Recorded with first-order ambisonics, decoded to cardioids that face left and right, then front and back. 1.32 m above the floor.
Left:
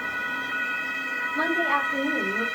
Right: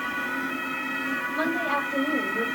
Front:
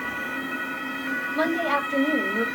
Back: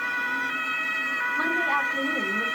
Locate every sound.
1.4 s a woman speaking: 25° right, 6.5 m